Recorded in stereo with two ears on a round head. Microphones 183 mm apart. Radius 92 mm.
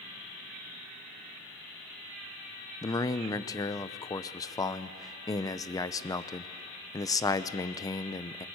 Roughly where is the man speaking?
Centre.